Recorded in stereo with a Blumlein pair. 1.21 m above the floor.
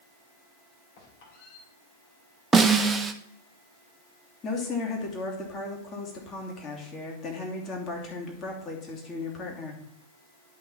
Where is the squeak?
50° left, 3 m.